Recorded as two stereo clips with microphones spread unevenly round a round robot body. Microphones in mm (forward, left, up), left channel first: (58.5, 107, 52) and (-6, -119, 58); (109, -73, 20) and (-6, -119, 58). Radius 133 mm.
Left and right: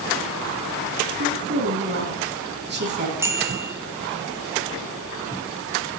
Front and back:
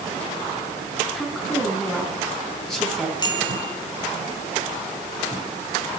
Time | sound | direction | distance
1.1 | a woman speaking | 60° right | 5.5 m
3.2 | a bicycle bell | 25° right | 2.5 m